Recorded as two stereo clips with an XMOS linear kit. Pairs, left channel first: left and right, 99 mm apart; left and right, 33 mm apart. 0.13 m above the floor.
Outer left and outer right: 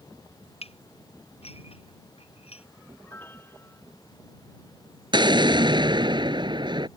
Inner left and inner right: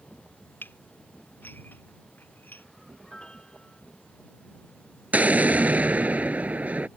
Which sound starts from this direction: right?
An explosion, at 5.1 s.